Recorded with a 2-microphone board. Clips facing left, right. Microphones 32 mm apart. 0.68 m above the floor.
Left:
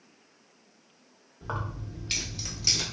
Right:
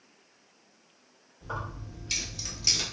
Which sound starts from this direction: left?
Keys jangling, at 1.4 s.